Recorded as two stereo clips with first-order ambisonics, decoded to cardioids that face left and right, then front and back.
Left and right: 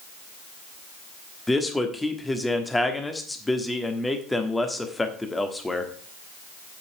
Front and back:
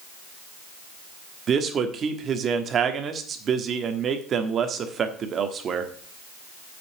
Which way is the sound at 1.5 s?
165° left.